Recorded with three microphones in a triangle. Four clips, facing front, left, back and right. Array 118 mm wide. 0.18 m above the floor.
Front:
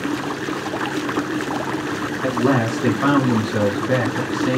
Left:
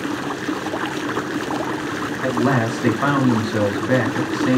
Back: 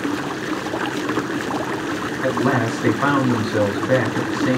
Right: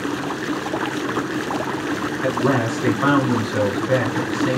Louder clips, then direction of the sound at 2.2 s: Left 1 dB, front 1 dB; 145° left.